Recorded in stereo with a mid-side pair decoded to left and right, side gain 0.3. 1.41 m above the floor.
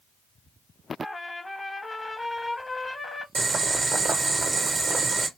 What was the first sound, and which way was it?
A trumpet, 25° left.